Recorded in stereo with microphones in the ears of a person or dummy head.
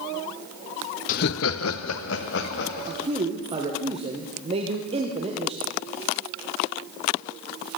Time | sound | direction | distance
1.1 | laughter | 40° left (ahead or behind) | 0.7 m
2.9 | a man speaking | 25° right (ahead or behind) | 1.2 m